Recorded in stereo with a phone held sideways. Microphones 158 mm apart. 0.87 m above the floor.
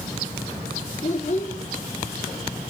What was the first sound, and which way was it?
A child speaking, 50° left (ahead or behind).